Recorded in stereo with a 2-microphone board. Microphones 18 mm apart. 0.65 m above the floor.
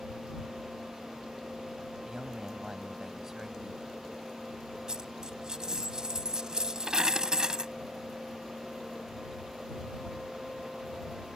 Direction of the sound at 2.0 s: 20° right (ahead or behind).